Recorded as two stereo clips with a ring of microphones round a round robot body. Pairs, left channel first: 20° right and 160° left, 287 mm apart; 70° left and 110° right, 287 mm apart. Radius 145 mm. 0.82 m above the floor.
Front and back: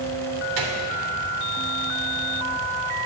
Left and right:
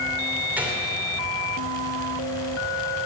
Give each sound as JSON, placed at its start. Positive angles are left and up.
{"t": 0.6, "sound": "a gunshot", "azimuth_deg": 165, "distance_m": 2.5}